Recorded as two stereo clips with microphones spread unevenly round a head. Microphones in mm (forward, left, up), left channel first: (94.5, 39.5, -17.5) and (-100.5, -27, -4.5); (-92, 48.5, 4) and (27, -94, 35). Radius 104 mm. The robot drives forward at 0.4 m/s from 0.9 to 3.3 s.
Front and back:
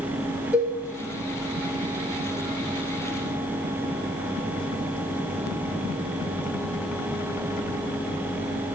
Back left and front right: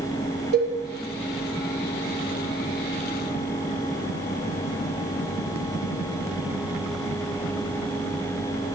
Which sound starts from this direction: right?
A cowbell, at 0.5 s.